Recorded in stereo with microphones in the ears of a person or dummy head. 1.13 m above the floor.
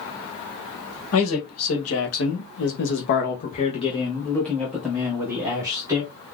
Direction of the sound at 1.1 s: 80° left.